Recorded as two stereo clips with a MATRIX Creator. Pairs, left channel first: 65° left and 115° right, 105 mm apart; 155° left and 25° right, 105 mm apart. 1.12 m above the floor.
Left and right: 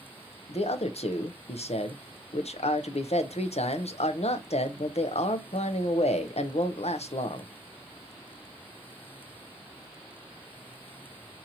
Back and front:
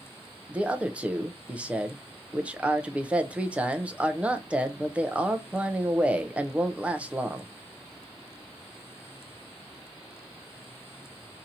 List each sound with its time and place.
0.5 s a man speaking: 55° left, 0.6 m